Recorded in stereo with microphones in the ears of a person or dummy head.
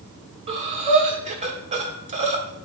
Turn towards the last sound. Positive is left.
turn(degrees=-25)  # may be behind; listen again after turning